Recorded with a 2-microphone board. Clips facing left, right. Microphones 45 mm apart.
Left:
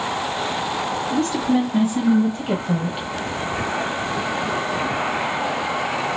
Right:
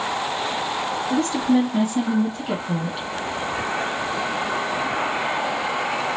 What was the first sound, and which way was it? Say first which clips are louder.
A woman speaking: right 1 dB; centre (ahead or behind).